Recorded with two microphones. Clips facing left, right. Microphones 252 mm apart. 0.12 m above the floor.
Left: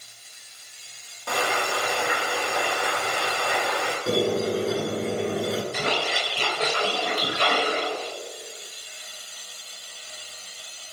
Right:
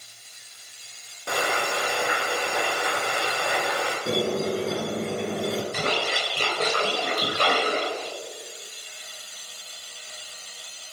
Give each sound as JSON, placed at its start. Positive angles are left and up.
{"t": 1.3, "sound": "frying", "side_deg": -20, "distance_m": 2.0}
{"t": 4.1, "sound": "a squeak", "side_deg": 5, "distance_m": 1.2}
{"t": 5.7, "sound": "a splash", "side_deg": -60, "distance_m": 2.5}